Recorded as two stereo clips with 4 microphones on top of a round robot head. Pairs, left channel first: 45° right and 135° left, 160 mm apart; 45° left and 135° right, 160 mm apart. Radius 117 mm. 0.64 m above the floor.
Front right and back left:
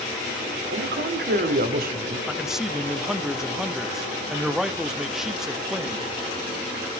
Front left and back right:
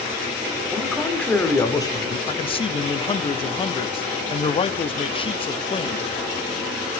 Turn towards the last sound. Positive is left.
turn(degrees=50)